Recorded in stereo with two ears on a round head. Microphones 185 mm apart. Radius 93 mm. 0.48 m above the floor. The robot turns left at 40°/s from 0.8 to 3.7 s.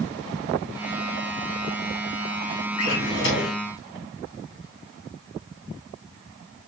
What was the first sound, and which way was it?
A drawer, 90° left.